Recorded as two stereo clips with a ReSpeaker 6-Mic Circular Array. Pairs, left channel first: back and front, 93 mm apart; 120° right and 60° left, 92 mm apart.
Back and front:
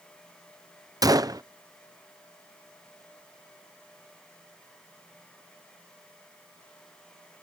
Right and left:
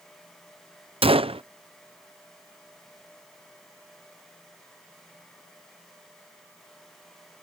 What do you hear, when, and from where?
1.0 s a gunshot: 50° left